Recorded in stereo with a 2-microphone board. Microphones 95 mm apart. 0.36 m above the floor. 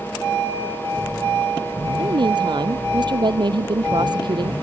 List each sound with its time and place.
2.0 s a woman speaking: 55° right (ahead or behind)